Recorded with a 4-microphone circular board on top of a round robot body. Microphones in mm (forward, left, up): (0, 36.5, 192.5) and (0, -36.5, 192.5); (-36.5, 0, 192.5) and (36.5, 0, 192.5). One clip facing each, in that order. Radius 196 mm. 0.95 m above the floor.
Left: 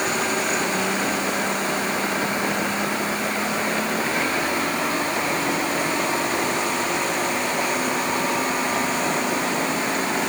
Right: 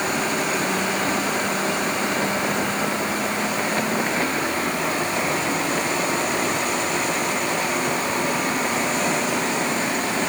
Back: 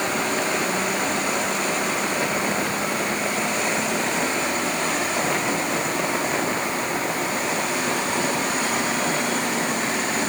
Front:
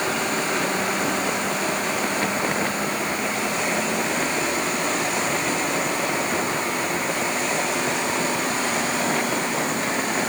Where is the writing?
No writing in this recording.